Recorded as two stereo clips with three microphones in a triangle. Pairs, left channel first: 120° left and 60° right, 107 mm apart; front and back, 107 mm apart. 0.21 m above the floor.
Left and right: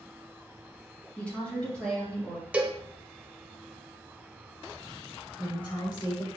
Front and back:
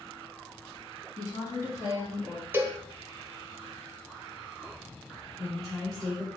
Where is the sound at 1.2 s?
45° left, 2 m.